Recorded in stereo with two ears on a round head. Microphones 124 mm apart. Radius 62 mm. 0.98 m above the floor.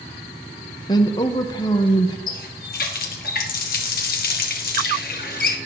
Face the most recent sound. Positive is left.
turn(degrees=70)  # may be behind; listen again after turning